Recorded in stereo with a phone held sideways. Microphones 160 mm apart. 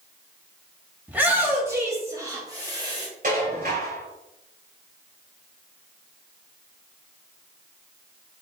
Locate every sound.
1.1 s a shout: 10° right (ahead or behind), 2.5 m; by 3.1 s 25° right (ahead or behind), 3.5 m
3.2 s dishes clattering: 55° right (ahead or behind), 4 m